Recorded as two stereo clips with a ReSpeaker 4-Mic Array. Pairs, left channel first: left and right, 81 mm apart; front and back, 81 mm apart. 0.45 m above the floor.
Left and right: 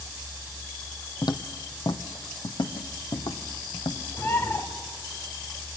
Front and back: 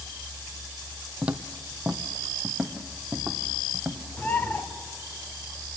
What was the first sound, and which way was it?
Footsteps, 105° left.